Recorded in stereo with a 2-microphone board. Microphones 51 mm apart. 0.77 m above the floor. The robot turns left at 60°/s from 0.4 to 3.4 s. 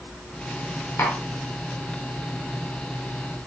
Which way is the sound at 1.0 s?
55° left (ahead or behind).